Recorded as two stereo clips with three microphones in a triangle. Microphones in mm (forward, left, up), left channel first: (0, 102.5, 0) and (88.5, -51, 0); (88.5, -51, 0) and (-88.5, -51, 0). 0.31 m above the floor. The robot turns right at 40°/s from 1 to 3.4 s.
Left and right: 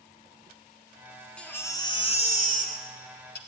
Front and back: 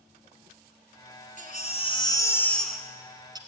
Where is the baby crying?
35° left, 1.5 m; by 3.4 s 115° left, 1.5 m.